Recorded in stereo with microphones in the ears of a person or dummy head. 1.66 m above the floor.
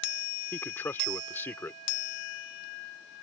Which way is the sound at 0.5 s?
15° left (ahead or behind).